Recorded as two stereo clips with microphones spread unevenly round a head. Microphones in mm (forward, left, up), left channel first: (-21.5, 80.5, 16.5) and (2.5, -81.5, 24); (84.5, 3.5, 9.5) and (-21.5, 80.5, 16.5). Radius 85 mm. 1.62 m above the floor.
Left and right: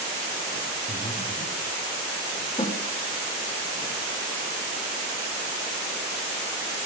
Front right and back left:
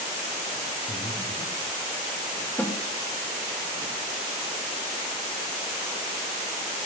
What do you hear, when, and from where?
0.9 s breathing: 25° left, 2.5 m
2.6 s a snare drum: 40° left, 1.5 m